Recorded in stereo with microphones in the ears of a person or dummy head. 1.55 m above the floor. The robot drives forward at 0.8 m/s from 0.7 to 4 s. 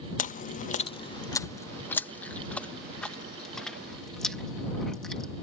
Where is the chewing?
40° left (ahead or behind); by 5.3 s 5° left (ahead or behind).